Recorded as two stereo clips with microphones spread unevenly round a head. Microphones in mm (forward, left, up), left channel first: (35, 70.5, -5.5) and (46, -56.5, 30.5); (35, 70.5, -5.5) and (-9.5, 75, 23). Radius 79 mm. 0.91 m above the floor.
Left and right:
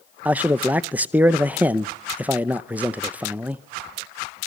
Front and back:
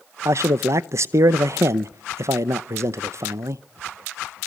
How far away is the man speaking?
About 0.7 m.